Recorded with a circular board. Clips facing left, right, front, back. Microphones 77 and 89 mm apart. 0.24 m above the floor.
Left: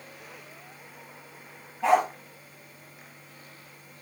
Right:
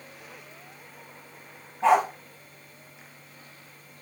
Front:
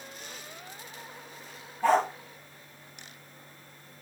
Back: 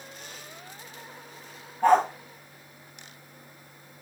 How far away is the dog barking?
About 5 m.